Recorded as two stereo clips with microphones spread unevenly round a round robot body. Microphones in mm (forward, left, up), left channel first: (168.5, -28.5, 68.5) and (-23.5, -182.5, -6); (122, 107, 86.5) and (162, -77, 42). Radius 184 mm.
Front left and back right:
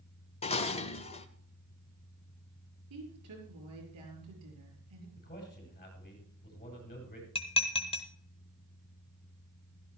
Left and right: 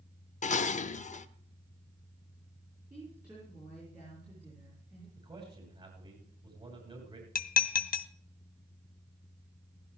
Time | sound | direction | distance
0.4 | dishes clattering | 115° left | 0.6 m
2.9 | a woman speaking | 160° right | 6 m
5.2 | a man speaking | 15° right | 6.5 m
7.3 | dishes clattering | 120° left | 0.6 m